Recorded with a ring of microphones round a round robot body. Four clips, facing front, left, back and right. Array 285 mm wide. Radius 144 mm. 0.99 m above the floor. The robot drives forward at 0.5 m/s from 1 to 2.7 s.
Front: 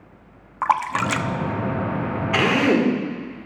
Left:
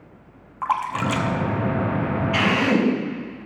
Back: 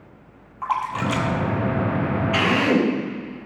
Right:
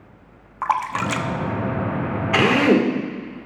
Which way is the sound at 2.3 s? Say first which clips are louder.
Right 5 dB, front 2 dB; 70° right.